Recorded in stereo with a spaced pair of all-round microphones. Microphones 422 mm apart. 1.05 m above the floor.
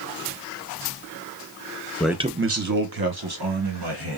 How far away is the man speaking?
About 0.6 m.